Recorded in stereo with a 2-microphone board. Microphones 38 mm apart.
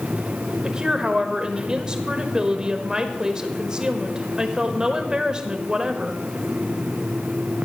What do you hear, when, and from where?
0.6 s a woman speaking: 20° right (ahead or behind), 1.1 m